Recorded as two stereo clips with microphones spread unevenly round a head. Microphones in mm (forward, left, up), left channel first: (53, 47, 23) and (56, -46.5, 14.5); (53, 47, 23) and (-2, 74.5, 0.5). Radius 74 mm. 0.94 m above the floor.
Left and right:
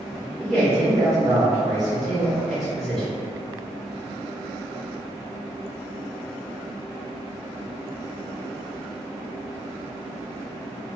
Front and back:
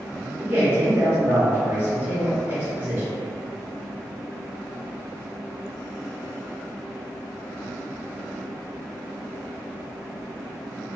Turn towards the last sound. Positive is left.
turn(degrees=180)